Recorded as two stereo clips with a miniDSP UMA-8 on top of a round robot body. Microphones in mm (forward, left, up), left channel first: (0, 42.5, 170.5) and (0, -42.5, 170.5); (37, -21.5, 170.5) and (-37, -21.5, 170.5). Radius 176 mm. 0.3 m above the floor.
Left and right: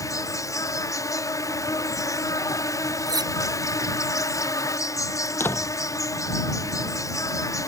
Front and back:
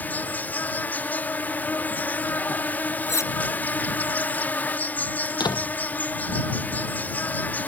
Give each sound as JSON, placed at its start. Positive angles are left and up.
{"t": 0.0, "sound": "an insect", "azimuth_deg": 55}
{"t": 3.1, "sound": "cutlery clinking", "azimuth_deg": -50}
{"t": 5.3, "sound": "a door slam", "azimuth_deg": 25}